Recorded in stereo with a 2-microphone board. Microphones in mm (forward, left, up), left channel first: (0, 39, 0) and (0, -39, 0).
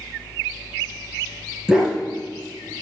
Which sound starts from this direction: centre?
A dog barking, at 1.7 s.